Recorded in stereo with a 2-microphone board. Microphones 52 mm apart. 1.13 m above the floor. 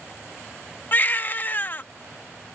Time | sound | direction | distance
0.9 | a baby crying | 40° left (ahead or behind) | ?